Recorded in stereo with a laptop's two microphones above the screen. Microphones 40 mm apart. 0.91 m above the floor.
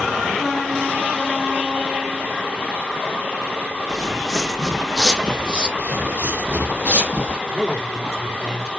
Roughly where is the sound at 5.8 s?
Right.